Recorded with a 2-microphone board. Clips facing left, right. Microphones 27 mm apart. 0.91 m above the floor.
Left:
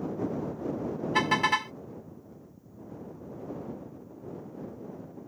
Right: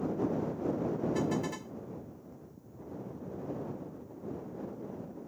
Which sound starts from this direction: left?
A car horn, at 1.1 s.